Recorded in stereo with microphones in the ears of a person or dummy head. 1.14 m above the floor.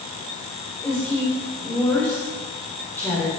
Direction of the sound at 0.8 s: 5° left (ahead or behind).